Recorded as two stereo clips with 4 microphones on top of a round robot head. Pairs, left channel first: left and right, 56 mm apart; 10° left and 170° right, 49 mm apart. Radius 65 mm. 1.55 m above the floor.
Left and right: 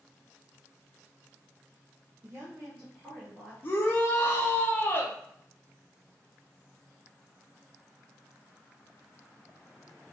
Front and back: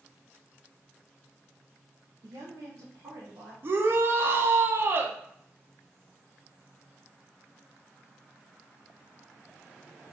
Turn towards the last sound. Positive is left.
turn(degrees=145)